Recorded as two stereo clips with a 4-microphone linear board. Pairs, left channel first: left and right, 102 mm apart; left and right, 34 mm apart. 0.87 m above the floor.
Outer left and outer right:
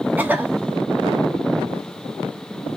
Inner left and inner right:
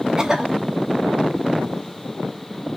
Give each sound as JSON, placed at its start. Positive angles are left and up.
{"t": 0.2, "sound": "a cough", "side_deg": -15, "distance_m": 0.8}